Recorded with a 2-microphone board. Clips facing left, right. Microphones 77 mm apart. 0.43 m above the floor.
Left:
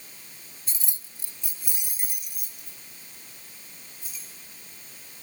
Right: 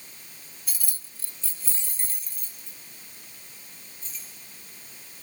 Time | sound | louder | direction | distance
0.7 | keys jangling | right 1 dB | 25° left (ahead or behind) | 0.6 m